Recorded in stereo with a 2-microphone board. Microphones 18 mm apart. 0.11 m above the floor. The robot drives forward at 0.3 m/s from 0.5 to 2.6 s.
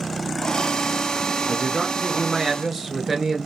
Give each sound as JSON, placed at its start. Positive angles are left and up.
{"t": 1.5, "sound": "a man speaking", "side_deg": -20, "distance_m": 1.2}